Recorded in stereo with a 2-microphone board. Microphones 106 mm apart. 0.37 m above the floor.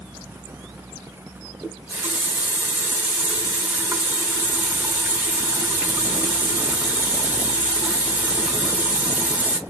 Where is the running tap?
15° right (ahead or behind), 0.6 m.